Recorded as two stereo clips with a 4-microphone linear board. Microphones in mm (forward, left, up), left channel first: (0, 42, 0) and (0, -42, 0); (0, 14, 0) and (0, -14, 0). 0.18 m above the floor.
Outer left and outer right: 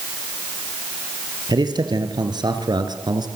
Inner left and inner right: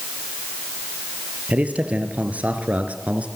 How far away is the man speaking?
About 3.5 m.